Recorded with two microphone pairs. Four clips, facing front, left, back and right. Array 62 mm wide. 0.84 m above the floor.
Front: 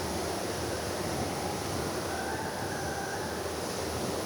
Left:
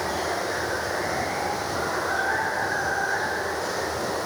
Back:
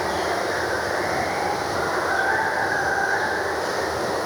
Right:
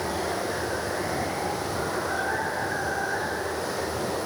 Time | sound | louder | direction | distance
0.0 | running water | left 2 dB, back 10 dB | 165° left | ?